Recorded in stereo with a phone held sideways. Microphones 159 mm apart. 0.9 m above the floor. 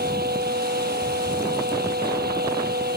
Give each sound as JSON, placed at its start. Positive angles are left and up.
{"t": 0.0, "sound": "a fan", "side_deg": -85}